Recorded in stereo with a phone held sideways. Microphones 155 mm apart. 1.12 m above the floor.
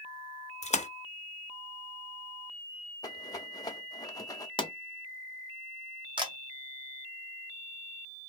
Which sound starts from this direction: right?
A camera shutter, at 6.2 s.